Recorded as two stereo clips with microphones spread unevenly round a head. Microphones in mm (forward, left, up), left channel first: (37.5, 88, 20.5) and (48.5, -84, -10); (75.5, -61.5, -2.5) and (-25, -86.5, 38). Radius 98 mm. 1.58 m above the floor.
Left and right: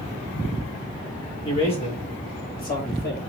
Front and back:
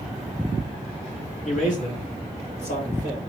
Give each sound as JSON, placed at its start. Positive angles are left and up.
{"t": 1.4, "sound": "a man speaking", "azimuth_deg": 35, "distance_m": 2.5}